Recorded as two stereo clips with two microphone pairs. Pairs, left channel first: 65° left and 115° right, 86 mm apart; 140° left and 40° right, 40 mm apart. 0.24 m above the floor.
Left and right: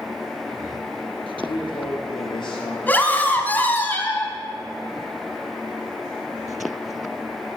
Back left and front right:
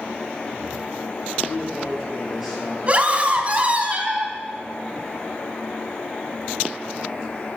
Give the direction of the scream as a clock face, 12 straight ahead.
12 o'clock.